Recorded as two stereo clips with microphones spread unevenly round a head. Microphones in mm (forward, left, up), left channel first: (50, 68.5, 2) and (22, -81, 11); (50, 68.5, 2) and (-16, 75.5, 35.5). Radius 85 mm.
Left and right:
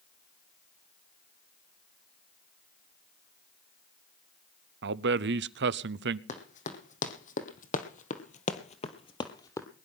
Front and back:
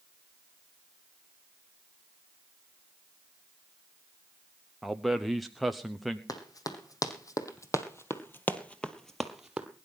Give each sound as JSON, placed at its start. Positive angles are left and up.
{"t": 4.8, "sound": "a man speaking", "azimuth_deg": -90, "distance_m": 0.8}
{"t": 6.3, "sound": "running footsteps", "azimuth_deg": 40, "distance_m": 3.5}